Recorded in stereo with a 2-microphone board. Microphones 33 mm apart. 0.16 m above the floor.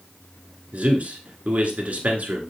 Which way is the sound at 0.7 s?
50° right (ahead or behind).